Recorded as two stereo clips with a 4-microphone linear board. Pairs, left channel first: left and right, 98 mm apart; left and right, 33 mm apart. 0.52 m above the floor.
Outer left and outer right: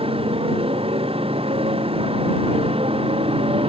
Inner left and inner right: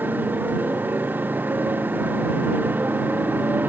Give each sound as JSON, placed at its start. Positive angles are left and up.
{"t": 0.0, "sound": "a motorcycle", "side_deg": -85}